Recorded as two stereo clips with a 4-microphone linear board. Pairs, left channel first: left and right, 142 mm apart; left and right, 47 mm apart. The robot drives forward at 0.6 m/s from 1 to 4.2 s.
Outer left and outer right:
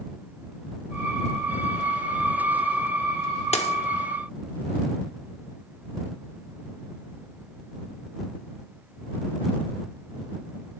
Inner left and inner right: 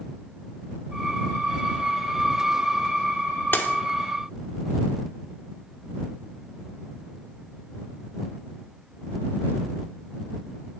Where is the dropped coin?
50° left (ahead or behind), 0.7 m; by 3.8 s 45° left (ahead or behind), 0.8 m.